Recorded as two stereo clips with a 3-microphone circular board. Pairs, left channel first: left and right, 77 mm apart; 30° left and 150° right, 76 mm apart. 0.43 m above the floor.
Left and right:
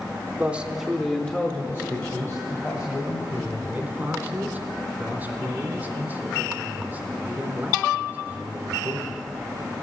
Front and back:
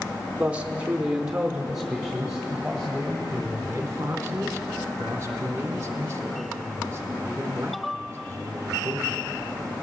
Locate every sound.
0.4 s a man speaking: 110° right, 0.8 m; by 3.2 s 120° left, 1.9 m
3.3 s a man speaking: 140° right, 1.2 m